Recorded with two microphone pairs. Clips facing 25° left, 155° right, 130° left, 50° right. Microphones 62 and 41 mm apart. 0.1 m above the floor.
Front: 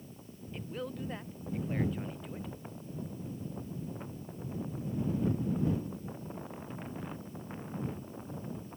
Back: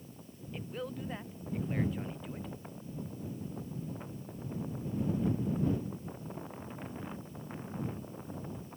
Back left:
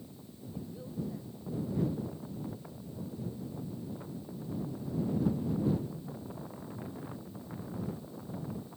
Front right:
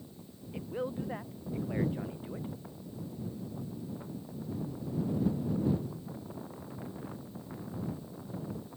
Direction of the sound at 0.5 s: 70° right.